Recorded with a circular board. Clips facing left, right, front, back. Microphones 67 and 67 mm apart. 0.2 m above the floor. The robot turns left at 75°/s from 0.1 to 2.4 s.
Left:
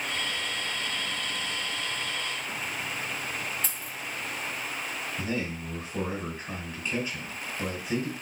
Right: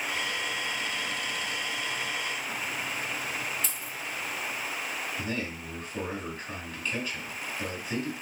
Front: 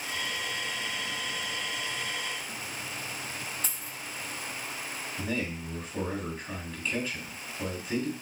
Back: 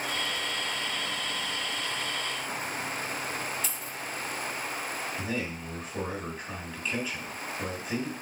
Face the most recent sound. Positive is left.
turn(degrees=105)